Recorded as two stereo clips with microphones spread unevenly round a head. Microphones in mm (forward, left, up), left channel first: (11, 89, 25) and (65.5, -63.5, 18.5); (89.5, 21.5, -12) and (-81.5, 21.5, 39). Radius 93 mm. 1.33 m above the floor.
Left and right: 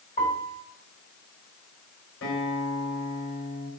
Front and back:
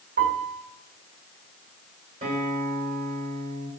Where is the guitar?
135° left, 5 m.